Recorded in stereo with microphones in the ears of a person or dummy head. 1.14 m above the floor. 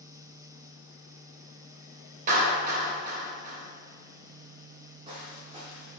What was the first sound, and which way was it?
A clap, 40° right (ahead or behind).